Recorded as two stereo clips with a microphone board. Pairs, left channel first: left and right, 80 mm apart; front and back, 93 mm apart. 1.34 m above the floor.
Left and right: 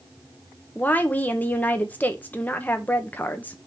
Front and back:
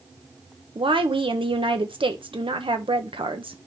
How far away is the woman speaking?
About 1.2 m.